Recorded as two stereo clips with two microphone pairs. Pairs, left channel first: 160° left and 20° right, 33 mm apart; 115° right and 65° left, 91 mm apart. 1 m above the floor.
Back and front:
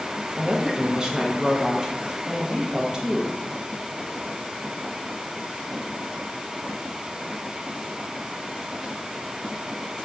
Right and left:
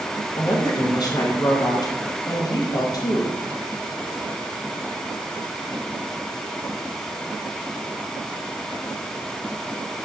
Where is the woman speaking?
80° right, 0.6 m.